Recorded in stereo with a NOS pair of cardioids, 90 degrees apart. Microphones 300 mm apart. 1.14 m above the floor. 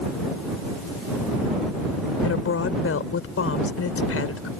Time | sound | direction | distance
2.2 | a woman speaking | 45° left | ?